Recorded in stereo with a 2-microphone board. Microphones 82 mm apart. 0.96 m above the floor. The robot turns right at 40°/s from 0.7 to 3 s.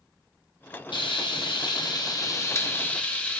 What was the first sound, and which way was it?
Frying, 80° left.